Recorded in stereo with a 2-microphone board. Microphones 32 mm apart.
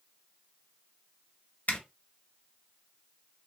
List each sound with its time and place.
1.7 s a zipper: 60° left (ahead or behind), 0.7 m